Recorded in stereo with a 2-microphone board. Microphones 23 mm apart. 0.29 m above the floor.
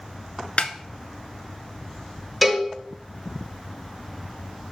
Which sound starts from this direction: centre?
A cowbell, at 2.4 s.